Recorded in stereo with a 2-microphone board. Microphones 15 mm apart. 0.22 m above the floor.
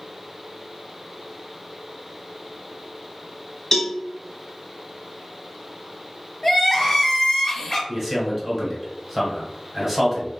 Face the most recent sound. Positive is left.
turn(degrees=-5)  # may be behind; listen again after turning